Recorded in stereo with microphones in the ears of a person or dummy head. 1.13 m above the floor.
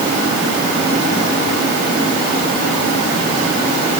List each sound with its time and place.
Only background noise.